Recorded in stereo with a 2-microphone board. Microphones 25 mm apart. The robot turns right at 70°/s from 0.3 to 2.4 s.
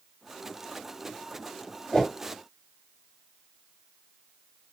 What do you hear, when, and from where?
1.9 s a whoosh: 15° left (ahead or behind), 1.8 m; by 2.1 s 25° left (ahead or behind), 1.8 m